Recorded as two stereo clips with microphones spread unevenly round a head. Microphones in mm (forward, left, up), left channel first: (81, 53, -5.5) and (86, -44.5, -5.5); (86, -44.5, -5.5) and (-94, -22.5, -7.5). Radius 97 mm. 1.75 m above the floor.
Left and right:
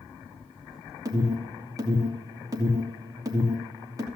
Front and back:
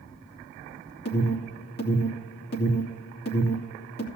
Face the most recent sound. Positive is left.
turn(degrees=-35)